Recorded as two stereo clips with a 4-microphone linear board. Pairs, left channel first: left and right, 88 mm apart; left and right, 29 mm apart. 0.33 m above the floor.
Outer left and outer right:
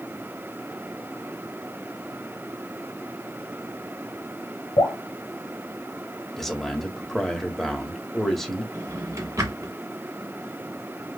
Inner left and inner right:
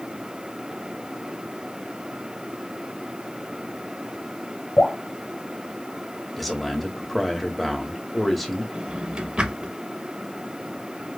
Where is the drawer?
40° right (ahead or behind), 1.0 m.